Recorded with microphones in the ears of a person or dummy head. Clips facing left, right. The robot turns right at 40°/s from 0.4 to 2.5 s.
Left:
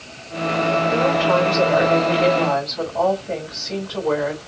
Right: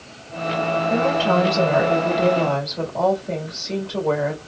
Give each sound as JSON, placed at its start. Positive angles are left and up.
{"t": 0.9, "sound": "a woman speaking", "azimuth_deg": -110, "distance_m": 2.5}